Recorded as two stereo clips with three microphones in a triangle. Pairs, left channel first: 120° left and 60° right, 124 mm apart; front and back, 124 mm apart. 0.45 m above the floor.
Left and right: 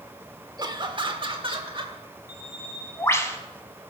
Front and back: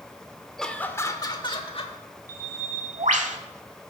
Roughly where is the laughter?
Right.